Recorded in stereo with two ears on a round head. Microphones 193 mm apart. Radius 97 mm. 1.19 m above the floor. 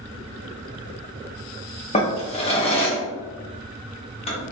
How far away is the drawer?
About 0.9 m.